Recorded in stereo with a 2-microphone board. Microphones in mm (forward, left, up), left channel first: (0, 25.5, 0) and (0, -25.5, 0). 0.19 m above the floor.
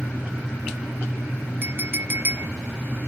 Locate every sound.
1.6 s a clink: 40° right (ahead or behind), 0.8 m